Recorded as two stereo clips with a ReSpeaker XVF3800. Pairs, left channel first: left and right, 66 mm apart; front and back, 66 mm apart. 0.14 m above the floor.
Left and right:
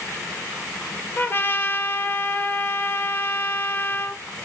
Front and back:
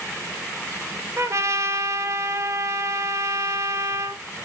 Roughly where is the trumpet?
Behind left.